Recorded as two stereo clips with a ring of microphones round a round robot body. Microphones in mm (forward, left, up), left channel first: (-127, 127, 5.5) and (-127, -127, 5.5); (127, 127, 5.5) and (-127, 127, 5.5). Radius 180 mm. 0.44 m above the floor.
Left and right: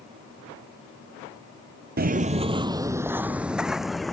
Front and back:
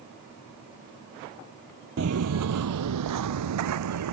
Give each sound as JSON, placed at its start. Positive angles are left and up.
{"t": 2.0, "sound": "footsteps", "azimuth_deg": -135}